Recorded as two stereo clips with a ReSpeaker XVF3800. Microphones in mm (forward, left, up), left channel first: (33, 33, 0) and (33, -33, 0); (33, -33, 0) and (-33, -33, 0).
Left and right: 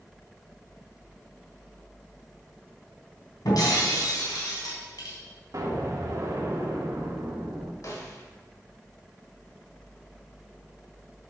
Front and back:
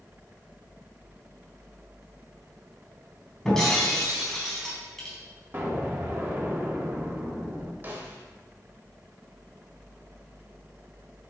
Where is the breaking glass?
80° left, 3 m.